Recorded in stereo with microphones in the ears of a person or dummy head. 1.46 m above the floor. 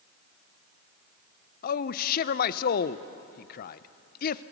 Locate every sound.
1.6 s a man speaking: 50° left (ahead or behind), 0.7 m